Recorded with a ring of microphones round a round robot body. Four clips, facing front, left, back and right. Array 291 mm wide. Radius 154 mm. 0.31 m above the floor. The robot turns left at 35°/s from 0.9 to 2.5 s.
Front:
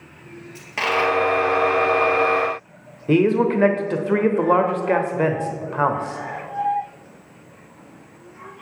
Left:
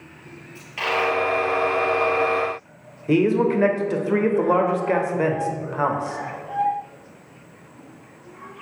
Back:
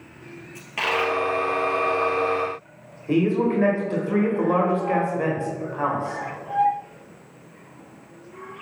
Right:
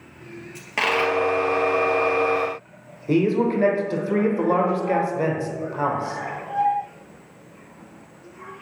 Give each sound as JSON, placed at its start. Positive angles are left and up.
{"t": 0.6, "sound": "a dropped coin", "azimuth_deg": -70, "distance_m": 1.9}
{"t": 3.1, "sound": "a man speaking", "azimuth_deg": 15, "distance_m": 1.1}